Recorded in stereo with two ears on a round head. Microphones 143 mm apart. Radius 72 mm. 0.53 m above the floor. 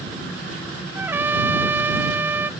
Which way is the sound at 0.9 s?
15° right (ahead or behind).